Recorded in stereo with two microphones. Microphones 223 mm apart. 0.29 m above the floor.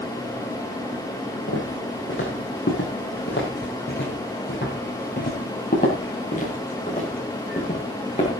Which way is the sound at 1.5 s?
65° left (ahead or behind).